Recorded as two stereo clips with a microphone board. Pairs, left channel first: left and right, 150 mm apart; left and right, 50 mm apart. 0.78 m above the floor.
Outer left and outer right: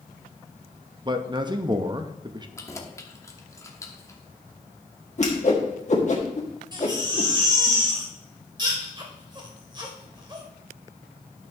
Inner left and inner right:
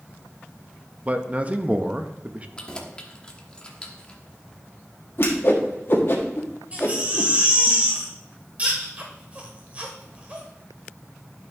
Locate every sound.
1.1 s a man speaking: 30° right (ahead or behind), 0.7 m
2.6 s keys jangling: 20° left (ahead or behind), 1.0 m
5.2 s a whoosh: 50° left (ahead or behind), 1.6 m
6.7 s a baby crying: 30° right (ahead or behind), 1.7 m